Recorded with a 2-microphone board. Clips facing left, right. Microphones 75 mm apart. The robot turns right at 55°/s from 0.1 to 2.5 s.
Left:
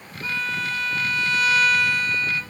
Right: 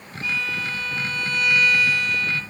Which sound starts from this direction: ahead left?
A violin, at 0.2 s.